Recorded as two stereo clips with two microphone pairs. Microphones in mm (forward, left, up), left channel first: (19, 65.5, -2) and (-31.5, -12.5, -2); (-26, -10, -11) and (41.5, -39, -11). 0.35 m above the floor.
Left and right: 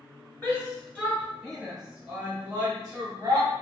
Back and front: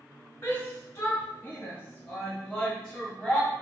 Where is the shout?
115° left, 1.2 m; by 3.5 s 110° right, 1.1 m.